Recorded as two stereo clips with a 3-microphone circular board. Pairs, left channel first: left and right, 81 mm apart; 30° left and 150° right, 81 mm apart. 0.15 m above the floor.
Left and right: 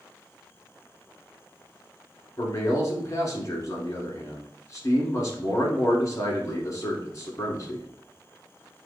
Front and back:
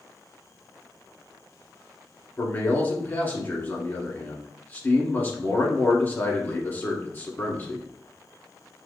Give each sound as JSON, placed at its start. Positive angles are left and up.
{"t": 2.4, "sound": "a man speaking", "azimuth_deg": 80, "distance_m": 1.4}